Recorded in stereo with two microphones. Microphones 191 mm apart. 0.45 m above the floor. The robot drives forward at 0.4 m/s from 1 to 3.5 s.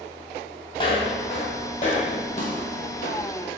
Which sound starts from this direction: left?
Footsteps, at 0.8 s.